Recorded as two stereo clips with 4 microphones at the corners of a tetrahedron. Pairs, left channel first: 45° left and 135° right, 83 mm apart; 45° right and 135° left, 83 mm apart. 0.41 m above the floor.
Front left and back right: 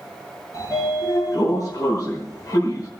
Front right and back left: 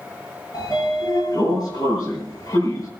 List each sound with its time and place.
0.5 s a sliding door: straight ahead, 8 m